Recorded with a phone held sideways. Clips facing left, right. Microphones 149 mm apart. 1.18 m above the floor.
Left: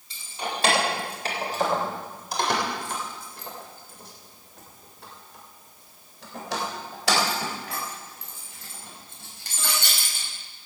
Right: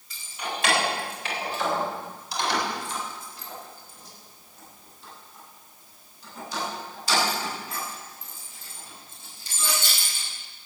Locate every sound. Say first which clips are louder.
0.1 s keys jangling: left 2 dB; 30° left (ahead or behind), 4 m; by 10.3 s 65° left (ahead or behind), 5.5 m